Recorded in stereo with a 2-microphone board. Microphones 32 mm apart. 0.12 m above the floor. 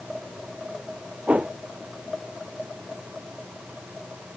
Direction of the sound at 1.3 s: 50° right (ahead or behind).